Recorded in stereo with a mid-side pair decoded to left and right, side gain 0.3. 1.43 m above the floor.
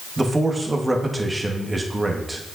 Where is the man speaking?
25° right, 1.3 m.